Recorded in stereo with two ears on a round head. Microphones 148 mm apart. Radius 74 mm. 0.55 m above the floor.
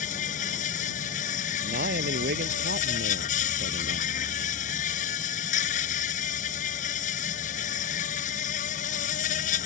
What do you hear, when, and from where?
0.0 s an insect: 50° left (ahead or behind)
1.6 s a man speaking: 60° right (ahead or behind)